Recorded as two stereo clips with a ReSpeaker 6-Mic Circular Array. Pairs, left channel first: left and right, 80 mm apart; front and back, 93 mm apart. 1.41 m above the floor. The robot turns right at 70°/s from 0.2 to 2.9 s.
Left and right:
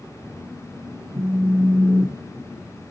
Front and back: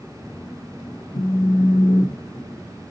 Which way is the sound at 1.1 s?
35° right.